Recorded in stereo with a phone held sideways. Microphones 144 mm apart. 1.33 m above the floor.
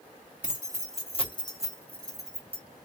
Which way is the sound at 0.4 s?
65° left (ahead or behind).